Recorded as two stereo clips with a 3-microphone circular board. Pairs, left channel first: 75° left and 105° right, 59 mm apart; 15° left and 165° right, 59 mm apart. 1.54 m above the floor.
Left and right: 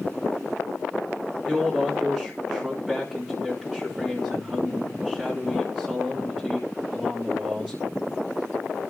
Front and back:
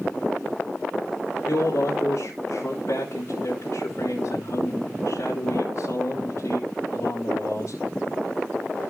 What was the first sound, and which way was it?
A man speaking, 25° right.